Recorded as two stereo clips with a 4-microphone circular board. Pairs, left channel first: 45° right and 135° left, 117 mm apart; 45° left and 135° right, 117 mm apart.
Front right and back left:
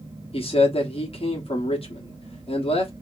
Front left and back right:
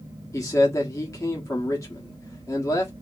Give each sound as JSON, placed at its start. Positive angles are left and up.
{"t": 0.3, "sound": "a man speaking", "azimuth_deg": -15, "distance_m": 1.4}